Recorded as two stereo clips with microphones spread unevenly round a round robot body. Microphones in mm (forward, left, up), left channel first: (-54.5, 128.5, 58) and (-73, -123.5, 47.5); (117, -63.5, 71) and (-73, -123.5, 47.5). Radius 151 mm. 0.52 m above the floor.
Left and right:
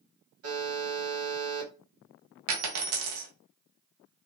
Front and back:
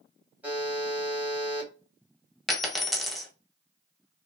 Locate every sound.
0.4 s a buzzer: 85° right, 2.5 m
2.5 s a dropped coin: 70° right, 1.2 m